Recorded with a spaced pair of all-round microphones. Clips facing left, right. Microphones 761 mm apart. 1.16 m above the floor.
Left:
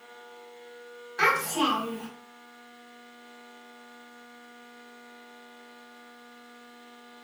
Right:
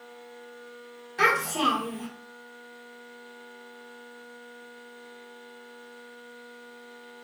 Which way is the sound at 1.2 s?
55° right (ahead or behind).